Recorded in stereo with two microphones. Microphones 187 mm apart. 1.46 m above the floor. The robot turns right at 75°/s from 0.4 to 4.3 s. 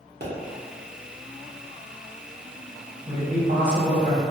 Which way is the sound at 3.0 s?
165° right.